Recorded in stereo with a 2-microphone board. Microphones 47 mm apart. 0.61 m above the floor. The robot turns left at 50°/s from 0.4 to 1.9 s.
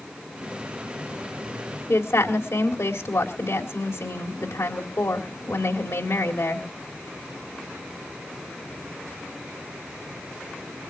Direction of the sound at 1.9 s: 70° left (ahead or behind).